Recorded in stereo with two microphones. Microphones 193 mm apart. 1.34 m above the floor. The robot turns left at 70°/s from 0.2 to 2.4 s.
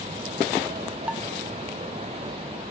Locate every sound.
1.1 s dishes clattering: 5° right (ahead or behind); by 1.2 s 5° left (ahead or behind)